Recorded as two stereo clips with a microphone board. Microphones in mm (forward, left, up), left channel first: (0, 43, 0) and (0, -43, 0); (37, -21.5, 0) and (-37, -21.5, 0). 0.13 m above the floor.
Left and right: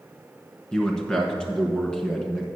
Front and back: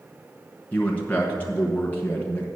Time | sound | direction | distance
0.7 | a man speaking | 25° left | 1.2 m